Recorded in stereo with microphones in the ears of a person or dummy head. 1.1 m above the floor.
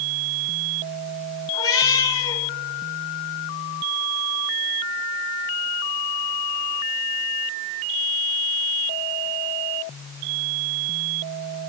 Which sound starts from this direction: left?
A cat meowing, at 1.5 s.